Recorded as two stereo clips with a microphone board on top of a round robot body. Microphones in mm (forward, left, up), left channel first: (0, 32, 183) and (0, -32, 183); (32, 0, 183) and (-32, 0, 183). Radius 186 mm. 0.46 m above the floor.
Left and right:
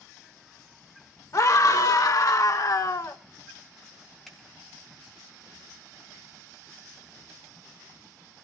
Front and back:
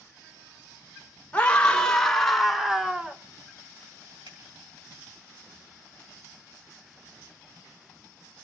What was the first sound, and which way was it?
A scream, 70° left.